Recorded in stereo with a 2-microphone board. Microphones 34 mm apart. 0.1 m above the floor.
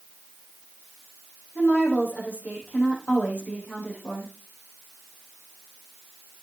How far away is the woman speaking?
About 5 m.